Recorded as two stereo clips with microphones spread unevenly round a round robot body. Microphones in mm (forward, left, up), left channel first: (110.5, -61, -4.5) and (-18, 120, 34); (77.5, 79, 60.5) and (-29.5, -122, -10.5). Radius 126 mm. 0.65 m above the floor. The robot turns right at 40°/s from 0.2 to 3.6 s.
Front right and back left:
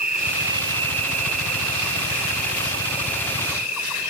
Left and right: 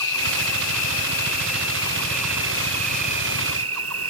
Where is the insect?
70° left; by 4.1 s 150° right.